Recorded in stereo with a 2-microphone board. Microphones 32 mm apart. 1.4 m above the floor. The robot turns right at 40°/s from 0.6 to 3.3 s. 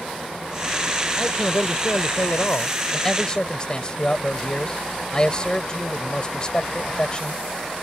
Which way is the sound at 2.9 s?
10° left (ahead or behind).